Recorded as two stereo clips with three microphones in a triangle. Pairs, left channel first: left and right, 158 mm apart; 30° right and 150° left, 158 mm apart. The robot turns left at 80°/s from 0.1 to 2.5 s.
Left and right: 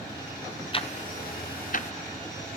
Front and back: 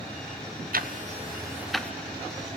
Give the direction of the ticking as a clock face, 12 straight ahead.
7 o'clock.